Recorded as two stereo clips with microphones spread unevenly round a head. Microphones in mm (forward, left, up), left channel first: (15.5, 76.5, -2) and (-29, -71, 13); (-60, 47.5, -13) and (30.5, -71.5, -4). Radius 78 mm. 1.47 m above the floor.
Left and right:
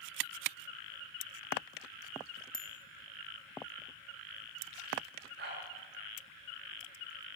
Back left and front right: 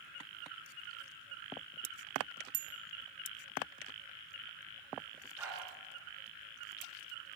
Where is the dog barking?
130° right, 9.5 m.